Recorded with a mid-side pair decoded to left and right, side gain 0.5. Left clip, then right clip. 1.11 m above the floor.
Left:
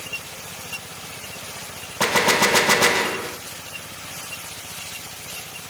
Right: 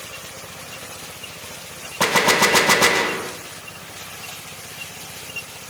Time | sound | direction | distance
2.0 | a gunshot | 15° right | 0.8 m